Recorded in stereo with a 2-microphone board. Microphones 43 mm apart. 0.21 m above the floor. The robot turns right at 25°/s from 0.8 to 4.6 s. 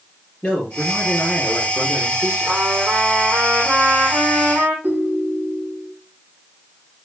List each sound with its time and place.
0.4 s a man speaking: 165° left, 4 m; by 2.6 s 150° right, 4 m
2.5 s a trumpet: 130° right, 4 m; by 4.7 s 80° right, 4 m
4.8 s a ringtone: 80° right, 5 m